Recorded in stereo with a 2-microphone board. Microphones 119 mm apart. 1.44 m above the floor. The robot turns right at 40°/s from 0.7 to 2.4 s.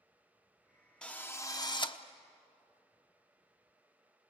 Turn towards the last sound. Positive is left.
turn(degrees=65)